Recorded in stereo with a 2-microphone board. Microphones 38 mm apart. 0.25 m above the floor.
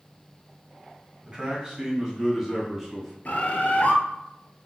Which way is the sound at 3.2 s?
50° left (ahead or behind).